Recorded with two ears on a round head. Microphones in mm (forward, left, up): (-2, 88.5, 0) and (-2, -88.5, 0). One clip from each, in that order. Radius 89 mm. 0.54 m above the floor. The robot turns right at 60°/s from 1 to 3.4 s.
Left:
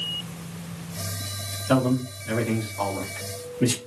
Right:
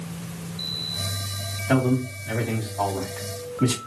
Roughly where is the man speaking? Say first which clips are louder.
Even; centre.